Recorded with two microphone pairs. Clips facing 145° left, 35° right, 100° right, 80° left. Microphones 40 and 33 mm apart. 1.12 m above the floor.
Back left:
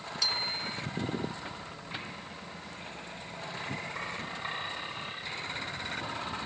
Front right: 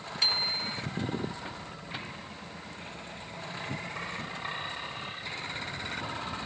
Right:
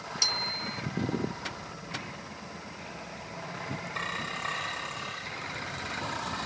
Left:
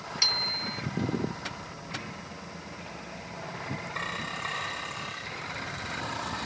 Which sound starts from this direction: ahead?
A bicycle bell, at 0.2 s.